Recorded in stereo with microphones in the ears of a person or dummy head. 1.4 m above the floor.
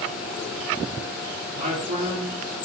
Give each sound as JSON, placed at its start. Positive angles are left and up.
{"t": 1.5, "sound": "a man speaking", "side_deg": -45, "distance_m": 4.0}